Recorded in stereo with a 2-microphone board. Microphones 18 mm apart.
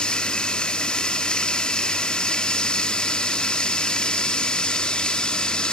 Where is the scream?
No scream in this recording.